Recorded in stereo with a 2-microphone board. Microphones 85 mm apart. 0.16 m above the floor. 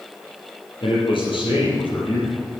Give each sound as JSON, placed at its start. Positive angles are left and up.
{"t": 0.8, "sound": "a man speaking", "side_deg": 75, "distance_m": 4.5}